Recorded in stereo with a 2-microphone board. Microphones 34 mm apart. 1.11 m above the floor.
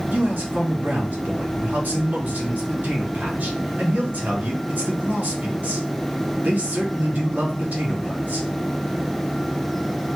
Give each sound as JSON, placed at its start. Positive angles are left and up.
{"t": 0.1, "sound": "a man speaking", "side_deg": -85, "distance_m": 3.0}